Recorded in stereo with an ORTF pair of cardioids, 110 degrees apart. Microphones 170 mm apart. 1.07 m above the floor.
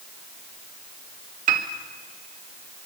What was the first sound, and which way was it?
A piano, 55° right.